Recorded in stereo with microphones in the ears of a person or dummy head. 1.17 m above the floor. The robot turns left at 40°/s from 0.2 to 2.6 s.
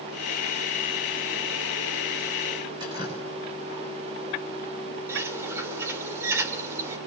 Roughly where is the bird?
Centre.